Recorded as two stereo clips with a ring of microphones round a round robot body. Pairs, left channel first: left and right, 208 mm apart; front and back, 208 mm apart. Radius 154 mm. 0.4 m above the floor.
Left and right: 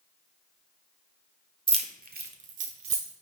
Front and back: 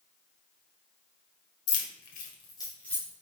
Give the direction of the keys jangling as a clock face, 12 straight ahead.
1 o'clock.